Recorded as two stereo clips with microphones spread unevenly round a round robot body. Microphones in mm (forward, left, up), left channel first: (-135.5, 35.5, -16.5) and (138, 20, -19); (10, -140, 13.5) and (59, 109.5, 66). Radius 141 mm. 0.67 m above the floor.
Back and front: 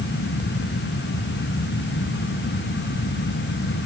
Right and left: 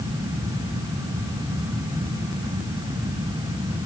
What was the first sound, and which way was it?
Only background noise.